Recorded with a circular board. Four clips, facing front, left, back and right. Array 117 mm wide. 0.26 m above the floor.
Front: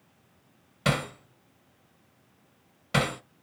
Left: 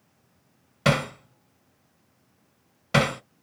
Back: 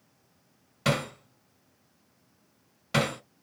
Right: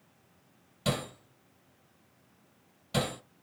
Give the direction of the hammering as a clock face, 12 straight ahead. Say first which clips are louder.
Left 9 dB, even; 9 o'clock.